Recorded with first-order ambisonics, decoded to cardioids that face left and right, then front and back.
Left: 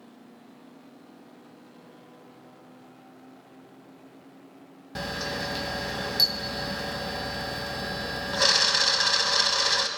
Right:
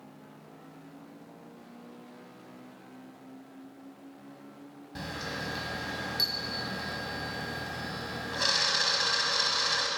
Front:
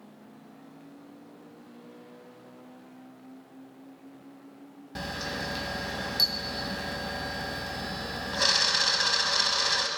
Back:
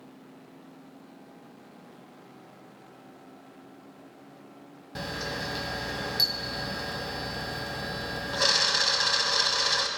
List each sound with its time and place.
5.0 s a camera shutter: 90° left, 0.5 m